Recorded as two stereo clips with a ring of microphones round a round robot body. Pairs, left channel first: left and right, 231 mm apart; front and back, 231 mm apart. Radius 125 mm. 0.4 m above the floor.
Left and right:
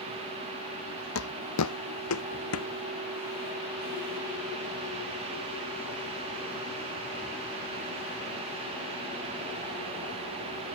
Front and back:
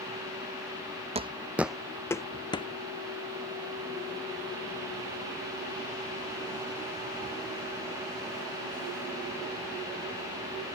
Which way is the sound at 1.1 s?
120° left.